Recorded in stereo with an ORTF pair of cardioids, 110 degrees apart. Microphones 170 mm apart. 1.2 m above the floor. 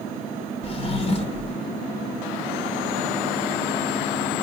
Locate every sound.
0.6 s a drawer: 35° left, 1.1 m